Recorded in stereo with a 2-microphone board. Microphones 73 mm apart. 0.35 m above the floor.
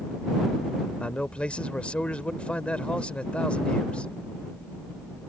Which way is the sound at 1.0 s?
15° left (ahead or behind).